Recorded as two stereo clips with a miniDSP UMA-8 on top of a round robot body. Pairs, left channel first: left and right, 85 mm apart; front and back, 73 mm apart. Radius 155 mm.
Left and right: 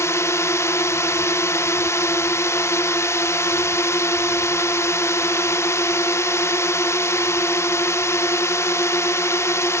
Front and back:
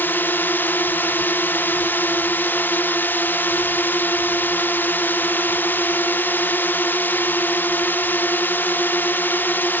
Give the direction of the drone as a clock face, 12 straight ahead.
10 o'clock.